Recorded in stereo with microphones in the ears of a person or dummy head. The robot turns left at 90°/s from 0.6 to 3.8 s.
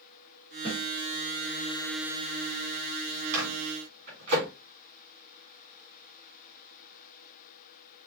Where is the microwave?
75° right (ahead or behind), 2.5 m; by 4.5 s 60° right (ahead or behind), 2.5 m.